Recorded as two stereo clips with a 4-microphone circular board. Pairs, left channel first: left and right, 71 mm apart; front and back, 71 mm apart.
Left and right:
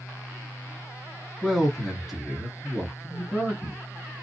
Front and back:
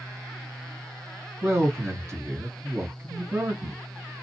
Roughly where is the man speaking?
Behind.